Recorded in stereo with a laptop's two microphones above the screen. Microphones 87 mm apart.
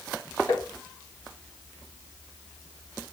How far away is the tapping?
About 1.8 m.